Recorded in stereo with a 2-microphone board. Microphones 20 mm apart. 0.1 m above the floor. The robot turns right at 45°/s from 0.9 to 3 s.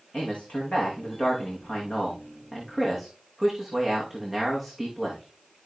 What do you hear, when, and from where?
0.1 s a man speaking: 85° left, 6.5 m; by 5.7 s straight behind, 6.5 m